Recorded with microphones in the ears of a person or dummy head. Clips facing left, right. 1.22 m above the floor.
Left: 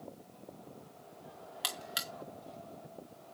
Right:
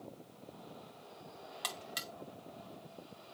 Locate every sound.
1.6 s a buzzer: 10° left (ahead or behind), 1.1 m